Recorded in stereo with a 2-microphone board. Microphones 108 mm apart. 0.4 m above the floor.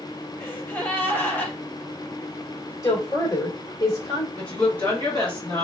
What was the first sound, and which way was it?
A gasp, 15° left (ahead or behind).